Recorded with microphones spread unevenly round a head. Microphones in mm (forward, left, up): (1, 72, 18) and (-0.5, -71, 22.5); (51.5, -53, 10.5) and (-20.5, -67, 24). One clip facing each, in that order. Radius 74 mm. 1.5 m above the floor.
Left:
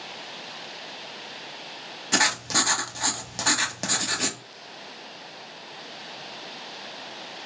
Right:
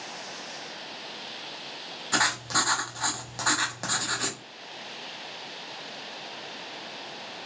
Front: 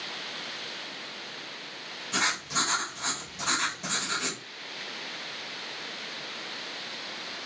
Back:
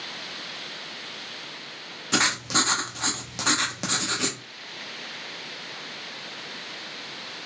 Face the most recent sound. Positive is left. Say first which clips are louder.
# left 2 dB, back 5 dB
turn(degrees=155)